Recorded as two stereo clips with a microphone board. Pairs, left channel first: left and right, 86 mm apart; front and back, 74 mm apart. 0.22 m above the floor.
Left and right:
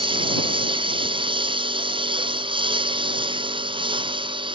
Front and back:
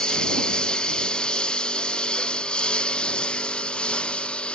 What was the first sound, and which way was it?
A lawn mower, 80° right.